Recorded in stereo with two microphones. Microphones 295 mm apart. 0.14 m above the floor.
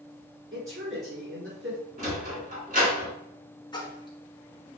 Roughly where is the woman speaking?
Right.